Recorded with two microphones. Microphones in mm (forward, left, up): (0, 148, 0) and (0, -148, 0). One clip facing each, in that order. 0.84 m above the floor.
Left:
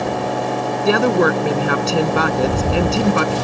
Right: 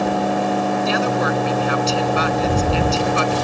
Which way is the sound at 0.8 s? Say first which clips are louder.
Left 5 dB; 65° left (ahead or behind).